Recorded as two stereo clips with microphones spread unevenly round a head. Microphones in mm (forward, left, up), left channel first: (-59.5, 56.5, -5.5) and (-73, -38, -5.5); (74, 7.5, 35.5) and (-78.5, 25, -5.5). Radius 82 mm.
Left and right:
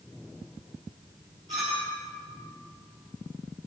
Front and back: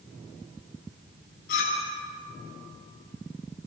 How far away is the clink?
About 5.5 m.